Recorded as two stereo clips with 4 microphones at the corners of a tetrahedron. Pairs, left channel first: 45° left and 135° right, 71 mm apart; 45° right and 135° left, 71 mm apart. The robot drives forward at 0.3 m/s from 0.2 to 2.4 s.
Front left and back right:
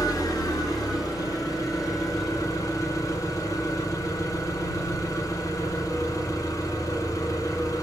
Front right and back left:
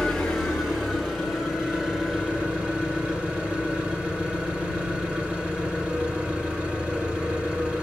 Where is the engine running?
40° left, 1.8 m; by 7.8 s 65° left, 1.4 m.